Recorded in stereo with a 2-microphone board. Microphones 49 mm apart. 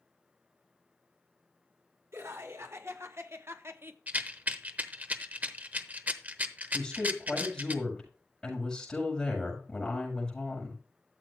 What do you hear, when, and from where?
2.1 s laughter: 65° right (ahead or behind), 1.7 m; by 4.0 s 50° right (ahead or behind), 0.8 m
4.1 s a rattle: 30° right (ahead or behind), 0.9 m
6.7 s a woman speaking: 15° left (ahead or behind), 6.5 m